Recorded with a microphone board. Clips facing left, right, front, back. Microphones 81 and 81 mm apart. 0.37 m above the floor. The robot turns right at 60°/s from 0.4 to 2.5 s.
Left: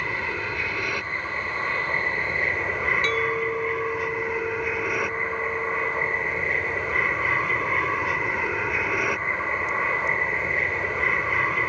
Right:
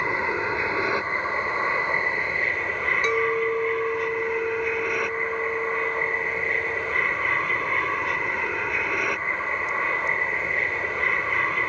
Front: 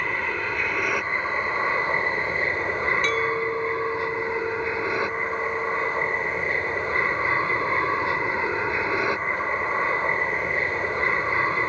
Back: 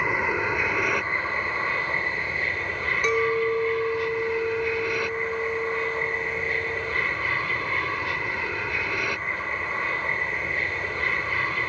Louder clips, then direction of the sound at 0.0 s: Right 4 dB, back 2 dB; 120° right.